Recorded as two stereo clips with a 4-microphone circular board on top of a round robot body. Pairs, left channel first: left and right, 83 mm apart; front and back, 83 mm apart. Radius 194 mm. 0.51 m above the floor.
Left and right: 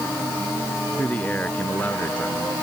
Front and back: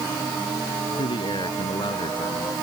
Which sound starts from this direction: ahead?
A man speaking, at 1.0 s.